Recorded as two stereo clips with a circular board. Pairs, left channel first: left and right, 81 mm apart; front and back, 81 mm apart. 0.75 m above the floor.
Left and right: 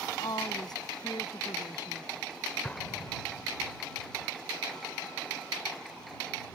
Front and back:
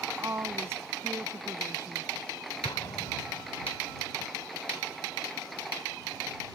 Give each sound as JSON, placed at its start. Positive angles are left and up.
{"t": 0.2, "sound": "a woman speaking", "azimuth_deg": 125}
{"t": 2.6, "sound": "an explosion", "azimuth_deg": 20}